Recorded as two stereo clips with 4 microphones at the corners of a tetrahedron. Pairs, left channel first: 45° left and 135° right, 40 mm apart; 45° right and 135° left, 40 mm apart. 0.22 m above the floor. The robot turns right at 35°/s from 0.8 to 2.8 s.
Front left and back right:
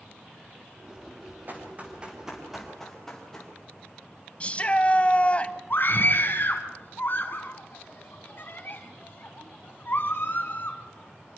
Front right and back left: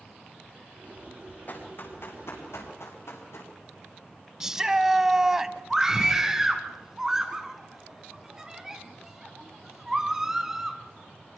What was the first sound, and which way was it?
Running footsteps, 90° right.